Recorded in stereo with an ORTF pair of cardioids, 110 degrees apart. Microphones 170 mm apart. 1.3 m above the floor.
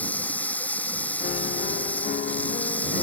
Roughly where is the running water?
Ahead.